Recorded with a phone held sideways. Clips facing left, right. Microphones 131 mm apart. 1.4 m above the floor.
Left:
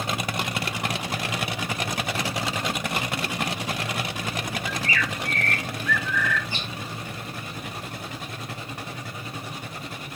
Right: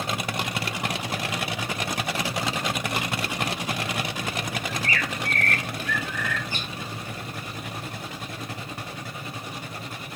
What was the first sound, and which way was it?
A bird, 45° right (ahead or behind).